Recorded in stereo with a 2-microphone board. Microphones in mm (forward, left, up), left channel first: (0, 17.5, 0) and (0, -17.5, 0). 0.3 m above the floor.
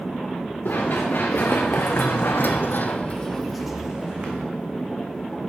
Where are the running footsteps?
65° left (ahead or behind), 2.5 m; by 4.5 s 30° right (ahead or behind), 1.4 m.